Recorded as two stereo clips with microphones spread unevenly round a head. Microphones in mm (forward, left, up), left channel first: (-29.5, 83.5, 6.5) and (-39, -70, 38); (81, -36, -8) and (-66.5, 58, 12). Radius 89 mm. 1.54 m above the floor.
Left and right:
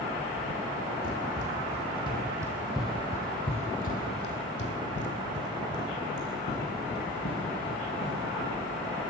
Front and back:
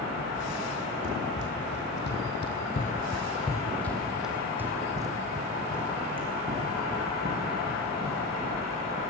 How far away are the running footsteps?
About 3.5 m.